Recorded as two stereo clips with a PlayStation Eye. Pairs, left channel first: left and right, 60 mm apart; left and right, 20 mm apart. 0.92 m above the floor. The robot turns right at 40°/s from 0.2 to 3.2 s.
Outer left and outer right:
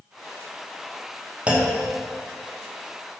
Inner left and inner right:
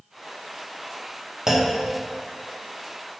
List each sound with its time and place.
1.5 s a clunk: 20° right (ahead or behind), 0.9 m; by 1.8 s 35° right (ahead or behind), 0.9 m